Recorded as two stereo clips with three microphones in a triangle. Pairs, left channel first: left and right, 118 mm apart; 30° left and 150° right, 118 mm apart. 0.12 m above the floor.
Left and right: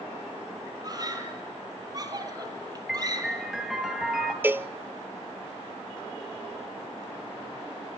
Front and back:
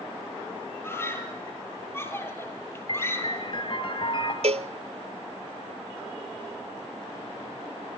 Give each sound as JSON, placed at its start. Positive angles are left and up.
{"t": 0.8, "sound": "a scream", "azimuth_deg": -35, "distance_m": 3.5}
{"t": 2.9, "sound": "a piano", "azimuth_deg": -5, "distance_m": 2.5}
{"t": 4.4, "sound": "a cowbell", "azimuth_deg": -160, "distance_m": 0.7}